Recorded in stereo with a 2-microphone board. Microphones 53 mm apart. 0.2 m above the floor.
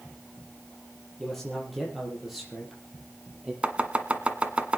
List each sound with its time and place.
1.2 s a man speaking: 5° left (ahead or behind), 6 m; by 3.5 s 15° right (ahead or behind), 6.5 m
3.6 s chopping: 20° right (ahead or behind), 1.7 m